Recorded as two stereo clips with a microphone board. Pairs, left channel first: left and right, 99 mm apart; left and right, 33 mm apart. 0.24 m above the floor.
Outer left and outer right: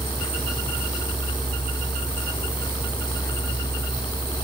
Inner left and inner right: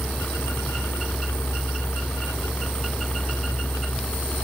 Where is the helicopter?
60° left (ahead or behind); by 4.5 s 50° left (ahead or behind).